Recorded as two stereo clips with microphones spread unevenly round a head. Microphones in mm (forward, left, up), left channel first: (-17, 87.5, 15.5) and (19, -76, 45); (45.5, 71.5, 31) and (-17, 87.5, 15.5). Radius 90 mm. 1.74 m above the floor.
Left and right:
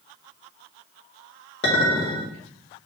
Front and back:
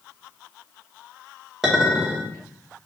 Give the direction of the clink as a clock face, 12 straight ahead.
9 o'clock.